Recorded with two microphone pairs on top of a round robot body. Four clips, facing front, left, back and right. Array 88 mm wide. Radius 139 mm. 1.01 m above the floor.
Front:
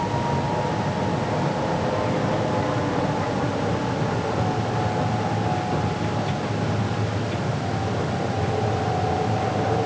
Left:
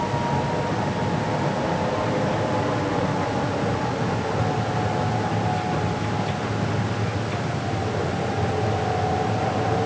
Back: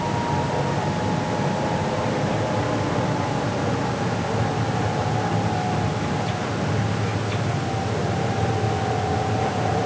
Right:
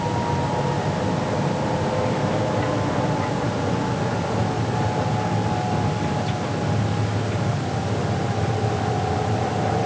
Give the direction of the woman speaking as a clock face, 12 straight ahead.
No woman speaking in this recording.